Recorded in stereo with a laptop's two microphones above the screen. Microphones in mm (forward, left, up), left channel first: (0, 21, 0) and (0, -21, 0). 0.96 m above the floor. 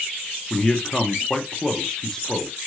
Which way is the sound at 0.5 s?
15° left (ahead or behind).